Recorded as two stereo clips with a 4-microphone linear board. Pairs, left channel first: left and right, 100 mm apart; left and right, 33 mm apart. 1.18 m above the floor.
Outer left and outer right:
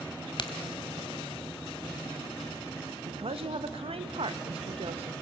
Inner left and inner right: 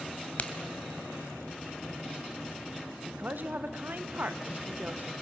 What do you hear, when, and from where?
0.4 s a crack: 50° left (ahead or behind), 1.5 m
3.1 s a woman speaking: 70° right (ahead or behind), 1.0 m